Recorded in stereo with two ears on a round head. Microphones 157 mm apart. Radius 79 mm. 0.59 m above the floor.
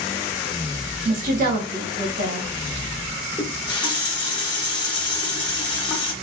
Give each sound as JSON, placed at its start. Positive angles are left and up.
{"t": 1.1, "sound": "a woman speaking", "side_deg": -50, "distance_m": 1.4}
{"t": 3.4, "sound": "a running tap", "side_deg": 25, "distance_m": 0.8}